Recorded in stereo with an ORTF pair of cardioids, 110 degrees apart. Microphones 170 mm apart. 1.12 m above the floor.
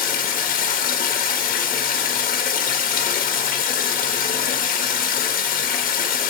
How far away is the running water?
About 1.5 m.